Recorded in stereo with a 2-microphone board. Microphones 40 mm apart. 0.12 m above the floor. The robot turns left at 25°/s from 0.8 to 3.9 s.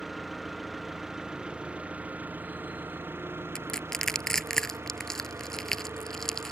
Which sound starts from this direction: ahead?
An engine running, at 0.0 s.